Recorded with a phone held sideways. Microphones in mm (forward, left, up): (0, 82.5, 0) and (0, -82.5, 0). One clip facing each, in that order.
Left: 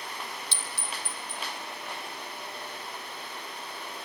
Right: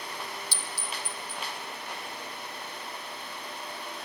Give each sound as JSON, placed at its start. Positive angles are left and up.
{"t": 0.5, "sound": "a clink", "side_deg": 25, "distance_m": 1.9}